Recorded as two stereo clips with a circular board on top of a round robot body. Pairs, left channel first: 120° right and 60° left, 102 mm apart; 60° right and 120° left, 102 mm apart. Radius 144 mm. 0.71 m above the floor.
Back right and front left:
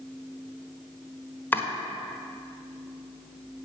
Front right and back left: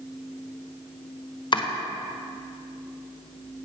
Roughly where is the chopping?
Ahead right.